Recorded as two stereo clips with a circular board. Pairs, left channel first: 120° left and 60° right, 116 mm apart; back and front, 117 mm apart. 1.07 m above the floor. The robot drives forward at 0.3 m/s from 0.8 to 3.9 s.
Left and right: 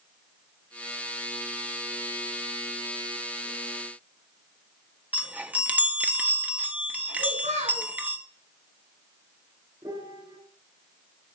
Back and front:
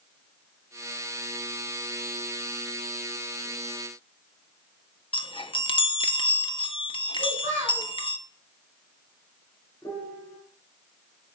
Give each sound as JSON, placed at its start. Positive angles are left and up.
{"t": 5.1, "sound": "a chime", "azimuth_deg": -135, "distance_m": 1.0}
{"t": 7.2, "sound": "a child speaking", "azimuth_deg": -60, "distance_m": 6.5}
{"t": 9.8, "sound": "a piano", "azimuth_deg": -110, "distance_m": 4.0}